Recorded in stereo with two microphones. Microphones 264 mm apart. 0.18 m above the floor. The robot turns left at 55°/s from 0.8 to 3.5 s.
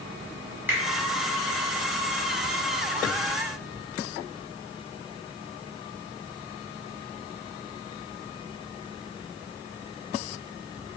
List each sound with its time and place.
0.7 s a finger snap: 5° right (ahead or behind), 1.3 m